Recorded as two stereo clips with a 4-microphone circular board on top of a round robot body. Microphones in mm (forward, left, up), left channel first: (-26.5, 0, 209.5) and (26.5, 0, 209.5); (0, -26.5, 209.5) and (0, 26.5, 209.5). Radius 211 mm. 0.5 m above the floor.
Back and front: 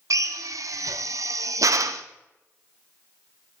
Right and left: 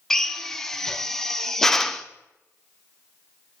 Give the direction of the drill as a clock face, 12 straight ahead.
12 o'clock.